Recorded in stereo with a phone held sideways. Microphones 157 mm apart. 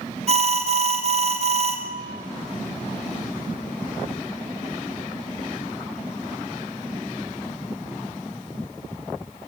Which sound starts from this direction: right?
An alarm, at 0.3 s.